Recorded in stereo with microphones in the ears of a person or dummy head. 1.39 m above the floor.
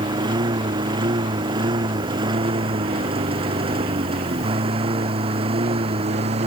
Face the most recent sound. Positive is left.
turn(degrees=-35)  # may be behind; listen again after turning